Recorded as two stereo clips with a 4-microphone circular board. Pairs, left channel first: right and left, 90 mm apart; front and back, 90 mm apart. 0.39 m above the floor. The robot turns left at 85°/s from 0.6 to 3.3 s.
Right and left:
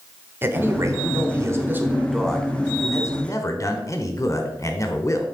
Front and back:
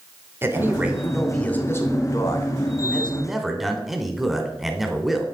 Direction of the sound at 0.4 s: 135° left.